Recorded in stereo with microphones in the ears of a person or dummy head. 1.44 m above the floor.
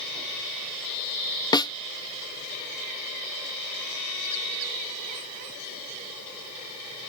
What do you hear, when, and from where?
1.5 s a snare drum: 20° left (ahead or behind)